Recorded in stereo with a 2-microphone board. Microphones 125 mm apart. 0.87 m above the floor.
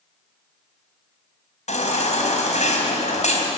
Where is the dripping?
No dripping in this recording.